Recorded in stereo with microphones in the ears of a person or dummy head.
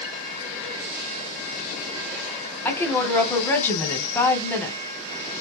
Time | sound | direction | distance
2.6 | a woman speaking | 10° left (ahead or behind) | 0.9 m